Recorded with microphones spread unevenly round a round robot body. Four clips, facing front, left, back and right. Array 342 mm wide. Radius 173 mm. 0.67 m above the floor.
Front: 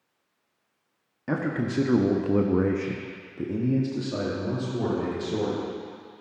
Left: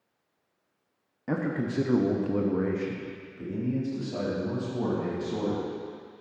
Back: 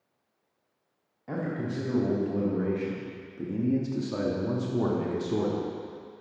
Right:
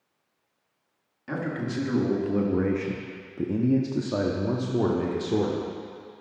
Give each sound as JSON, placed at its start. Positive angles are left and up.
{"t": 1.3, "sound": "a man speaking", "azimuth_deg": 25, "distance_m": 1.0}